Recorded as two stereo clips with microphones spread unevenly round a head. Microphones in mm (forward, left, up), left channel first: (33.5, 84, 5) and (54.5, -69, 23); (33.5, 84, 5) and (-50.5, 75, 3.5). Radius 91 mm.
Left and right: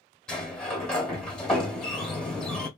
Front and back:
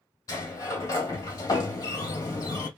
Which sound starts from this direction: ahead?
A sliding door, at 0.3 s.